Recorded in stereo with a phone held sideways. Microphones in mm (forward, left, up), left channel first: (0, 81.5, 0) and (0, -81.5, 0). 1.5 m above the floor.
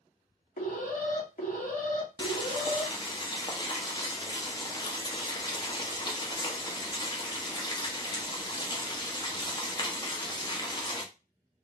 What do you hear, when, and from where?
0.6 s an alarm: 60° left (ahead or behind), 2 m
2.2 s boiling: 30° left (ahead or behind), 1.1 m